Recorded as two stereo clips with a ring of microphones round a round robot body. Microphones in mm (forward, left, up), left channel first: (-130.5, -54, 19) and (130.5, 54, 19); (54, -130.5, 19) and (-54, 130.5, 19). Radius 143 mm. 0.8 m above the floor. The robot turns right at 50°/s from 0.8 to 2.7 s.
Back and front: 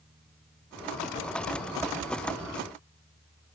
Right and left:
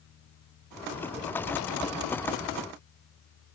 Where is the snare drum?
I don't hear a snare drum.